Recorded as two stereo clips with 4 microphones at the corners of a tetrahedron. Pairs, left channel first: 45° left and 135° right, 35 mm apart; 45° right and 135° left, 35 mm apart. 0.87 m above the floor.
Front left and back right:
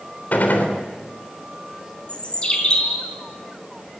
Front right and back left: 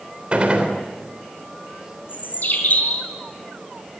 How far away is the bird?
About 4 m.